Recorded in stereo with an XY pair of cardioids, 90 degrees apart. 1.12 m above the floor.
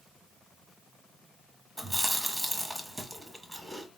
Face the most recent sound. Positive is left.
turn(degrees=-15)